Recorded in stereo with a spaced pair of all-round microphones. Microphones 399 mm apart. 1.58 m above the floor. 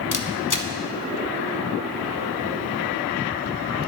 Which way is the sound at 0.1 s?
50° left (ahead or behind).